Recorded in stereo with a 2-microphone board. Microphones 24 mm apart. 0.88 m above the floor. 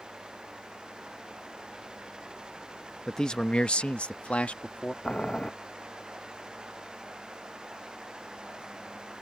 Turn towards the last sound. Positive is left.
turn(degrees=45)  # may be behind; listen again after turning